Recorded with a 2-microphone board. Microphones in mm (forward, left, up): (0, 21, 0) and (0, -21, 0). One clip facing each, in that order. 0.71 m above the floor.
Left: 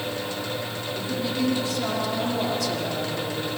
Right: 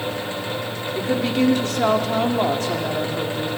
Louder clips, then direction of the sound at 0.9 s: Right 7 dB; 65° right (ahead or behind).